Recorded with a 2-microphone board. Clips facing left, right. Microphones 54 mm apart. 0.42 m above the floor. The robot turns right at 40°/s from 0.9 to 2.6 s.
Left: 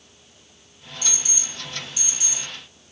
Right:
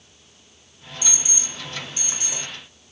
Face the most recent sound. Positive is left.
turn(degrees=-105)